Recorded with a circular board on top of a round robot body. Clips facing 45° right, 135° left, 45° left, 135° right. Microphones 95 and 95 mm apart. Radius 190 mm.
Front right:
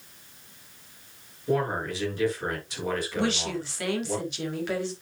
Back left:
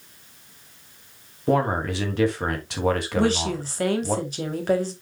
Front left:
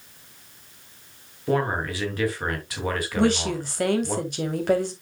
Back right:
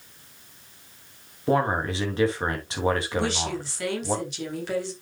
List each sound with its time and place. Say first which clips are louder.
1.5 s a man speaking: back left 5 dB, back right 1 dB; 160° left, 3.5 m
3.2 s a woman speaking: back left 5 dB, front left 5 dB; 85° left, 3.5 m